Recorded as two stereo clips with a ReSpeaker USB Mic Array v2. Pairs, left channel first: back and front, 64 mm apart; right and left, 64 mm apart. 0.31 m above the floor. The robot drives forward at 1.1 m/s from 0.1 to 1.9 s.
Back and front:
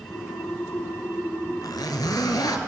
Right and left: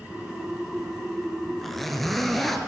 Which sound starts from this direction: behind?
A zipper, at 1.6 s.